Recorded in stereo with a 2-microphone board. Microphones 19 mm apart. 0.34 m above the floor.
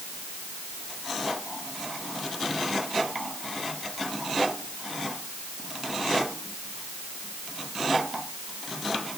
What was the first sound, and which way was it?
Only background noise.